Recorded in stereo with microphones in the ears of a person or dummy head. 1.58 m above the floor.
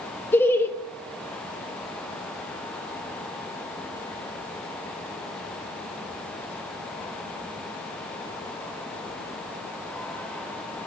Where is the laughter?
15° left (ahead or behind), 0.7 m.